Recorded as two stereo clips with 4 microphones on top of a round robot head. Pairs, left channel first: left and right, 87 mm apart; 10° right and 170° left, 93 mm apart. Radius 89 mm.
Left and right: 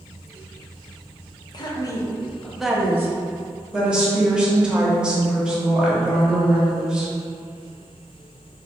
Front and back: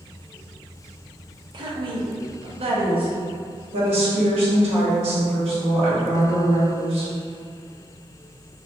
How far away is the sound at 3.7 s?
About 1.0 m.